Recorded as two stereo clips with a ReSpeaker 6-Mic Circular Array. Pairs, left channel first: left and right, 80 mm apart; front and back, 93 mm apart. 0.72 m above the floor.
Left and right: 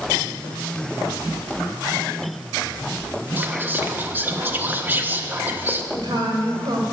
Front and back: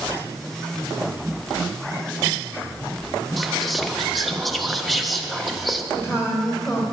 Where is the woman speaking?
55° right, 2.5 m.